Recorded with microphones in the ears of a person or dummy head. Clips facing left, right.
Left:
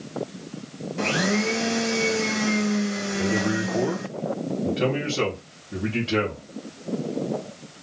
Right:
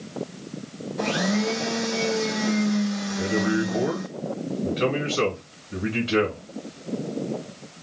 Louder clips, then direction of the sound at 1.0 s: Even; 40° left (ahead or behind).